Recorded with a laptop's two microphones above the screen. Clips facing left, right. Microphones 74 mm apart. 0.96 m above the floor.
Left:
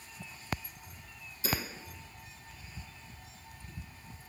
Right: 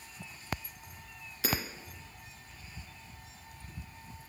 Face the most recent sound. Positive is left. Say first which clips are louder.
# right 1 dB
turn(degrees=-75)  # may be behind; listen again after turning